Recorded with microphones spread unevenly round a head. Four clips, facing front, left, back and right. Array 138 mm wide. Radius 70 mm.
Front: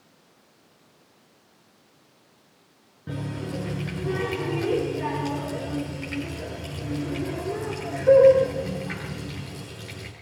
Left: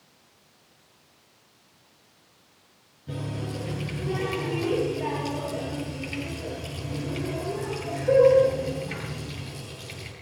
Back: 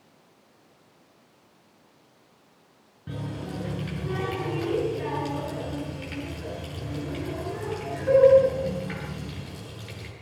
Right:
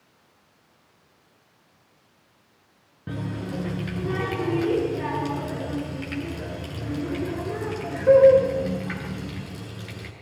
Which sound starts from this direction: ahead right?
A running tap, at 3.1 s.